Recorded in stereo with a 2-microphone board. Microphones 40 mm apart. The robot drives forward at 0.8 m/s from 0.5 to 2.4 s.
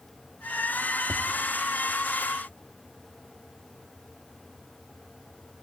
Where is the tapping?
60° right (ahead or behind), 1.9 m; by 1.3 s 65° right (ahead or behind), 1.8 m.